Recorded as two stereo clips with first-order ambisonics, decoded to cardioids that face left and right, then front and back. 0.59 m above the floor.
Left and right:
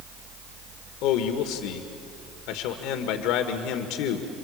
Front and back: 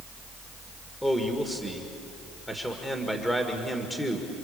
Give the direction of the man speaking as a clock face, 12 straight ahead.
9 o'clock.